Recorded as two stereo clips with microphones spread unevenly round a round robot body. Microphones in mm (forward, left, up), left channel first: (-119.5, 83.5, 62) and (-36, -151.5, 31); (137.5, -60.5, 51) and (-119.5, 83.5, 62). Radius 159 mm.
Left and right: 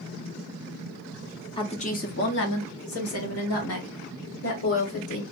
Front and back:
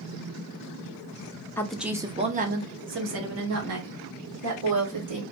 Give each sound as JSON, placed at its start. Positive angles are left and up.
{"t": 1.6, "sound": "a woman speaking", "azimuth_deg": 40, "distance_m": 0.7}